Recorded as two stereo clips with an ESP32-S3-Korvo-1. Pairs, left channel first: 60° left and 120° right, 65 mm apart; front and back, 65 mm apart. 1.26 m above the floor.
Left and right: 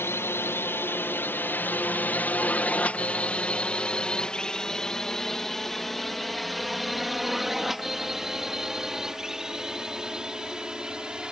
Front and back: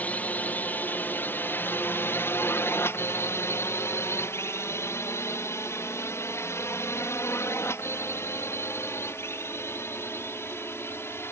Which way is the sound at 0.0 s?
50° left.